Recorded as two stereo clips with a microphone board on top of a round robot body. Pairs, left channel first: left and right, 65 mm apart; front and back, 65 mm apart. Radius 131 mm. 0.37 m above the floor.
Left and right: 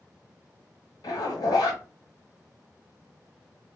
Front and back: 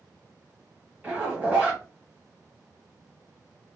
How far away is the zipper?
About 1.0 m.